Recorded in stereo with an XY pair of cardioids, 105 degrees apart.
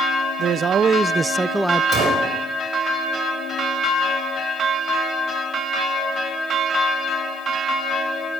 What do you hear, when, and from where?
0.4 s a man speaking: 60° right, 0.8 m; by 1.8 s 5° left, 0.6 m
1.9 s a gunshot: 60° right, 5 m